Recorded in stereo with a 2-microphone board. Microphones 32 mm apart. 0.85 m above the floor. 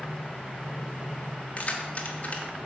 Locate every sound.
1.6 s keys jangling: 40° left (ahead or behind), 1.1 m